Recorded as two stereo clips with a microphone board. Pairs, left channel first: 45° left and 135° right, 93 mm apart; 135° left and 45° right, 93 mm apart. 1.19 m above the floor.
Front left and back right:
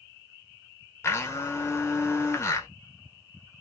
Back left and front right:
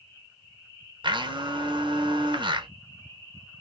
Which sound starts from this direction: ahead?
A blender, at 1.0 s.